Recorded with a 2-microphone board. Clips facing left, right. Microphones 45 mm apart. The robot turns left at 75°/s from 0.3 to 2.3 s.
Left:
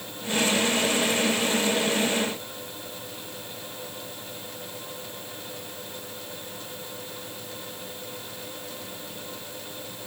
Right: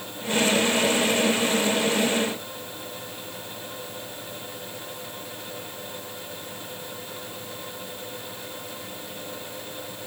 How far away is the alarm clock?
I don't hear an alarm clock.